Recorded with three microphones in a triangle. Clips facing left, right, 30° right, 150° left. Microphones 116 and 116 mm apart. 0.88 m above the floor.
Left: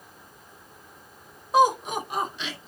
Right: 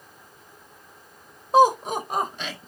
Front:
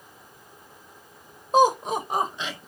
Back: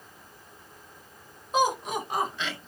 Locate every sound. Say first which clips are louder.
1.5 s laughter: right 3 dB, front 6 dB; 45° right, 1.0 m; by 2.7 s 105° right, 1.3 m